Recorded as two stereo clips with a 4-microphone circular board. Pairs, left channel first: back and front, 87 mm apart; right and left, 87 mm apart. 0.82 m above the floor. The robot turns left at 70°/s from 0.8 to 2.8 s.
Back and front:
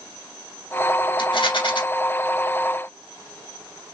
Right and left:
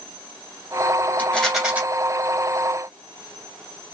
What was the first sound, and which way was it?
A rattle, 155° right.